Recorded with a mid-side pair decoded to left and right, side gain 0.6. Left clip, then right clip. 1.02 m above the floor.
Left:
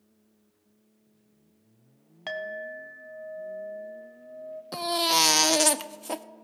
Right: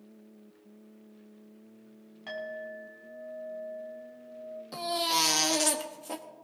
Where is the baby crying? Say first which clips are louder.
Left 4 dB; 35° left, 0.8 m.